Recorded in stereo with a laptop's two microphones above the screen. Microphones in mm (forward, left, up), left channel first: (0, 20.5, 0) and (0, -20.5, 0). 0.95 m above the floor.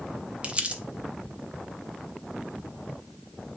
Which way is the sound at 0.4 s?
30° right (ahead or behind).